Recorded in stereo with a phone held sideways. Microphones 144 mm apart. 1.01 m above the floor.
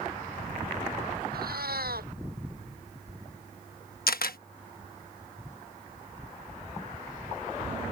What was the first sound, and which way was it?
A cat meowing, 90° right.